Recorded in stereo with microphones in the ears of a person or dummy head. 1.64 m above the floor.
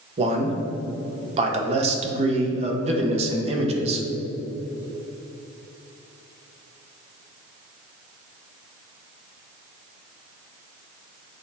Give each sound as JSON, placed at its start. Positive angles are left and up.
{"t": 0.2, "sound": "a man speaking", "side_deg": -40, "distance_m": 1.4}